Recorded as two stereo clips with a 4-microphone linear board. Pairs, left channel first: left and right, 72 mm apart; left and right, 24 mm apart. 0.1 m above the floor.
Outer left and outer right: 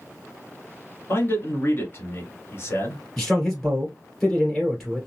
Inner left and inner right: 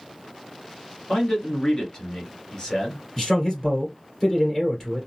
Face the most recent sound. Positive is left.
turn(degrees=0)  # may be behind; listen again after turning